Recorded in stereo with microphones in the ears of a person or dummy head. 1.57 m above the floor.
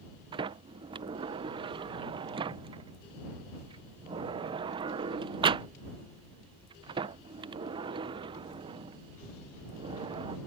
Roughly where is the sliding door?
Right.